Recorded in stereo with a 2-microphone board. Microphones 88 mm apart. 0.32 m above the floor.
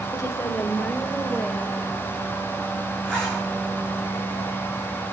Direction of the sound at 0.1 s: 35° left (ahead or behind).